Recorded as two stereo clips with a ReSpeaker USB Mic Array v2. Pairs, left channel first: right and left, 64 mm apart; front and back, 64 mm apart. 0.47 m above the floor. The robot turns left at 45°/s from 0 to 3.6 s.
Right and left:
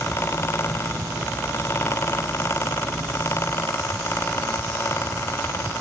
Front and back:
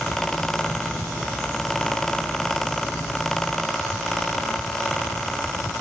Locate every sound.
Only background noise.